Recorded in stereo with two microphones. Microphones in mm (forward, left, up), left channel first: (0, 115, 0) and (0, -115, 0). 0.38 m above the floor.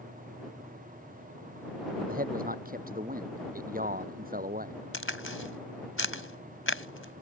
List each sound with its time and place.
2.1 s a man speaking: 40° right (ahead or behind)
4.9 s a crack: 60° left (ahead or behind)